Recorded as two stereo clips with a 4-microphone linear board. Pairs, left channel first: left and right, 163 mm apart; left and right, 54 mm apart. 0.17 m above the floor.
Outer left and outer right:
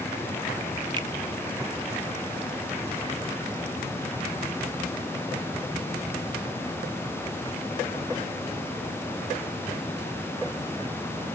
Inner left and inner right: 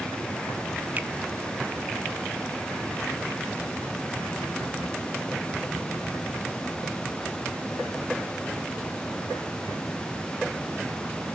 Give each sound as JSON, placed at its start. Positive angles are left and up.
{"t": 1.0, "sound": "a finger snap", "side_deg": -30, "distance_m": 0.9}